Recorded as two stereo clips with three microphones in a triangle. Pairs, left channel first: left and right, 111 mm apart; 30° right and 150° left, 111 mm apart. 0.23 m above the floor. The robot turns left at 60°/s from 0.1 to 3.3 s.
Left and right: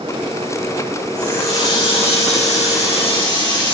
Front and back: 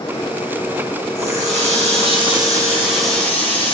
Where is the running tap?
175° left, 7.5 m; by 3.8 s 45° left, 7.5 m.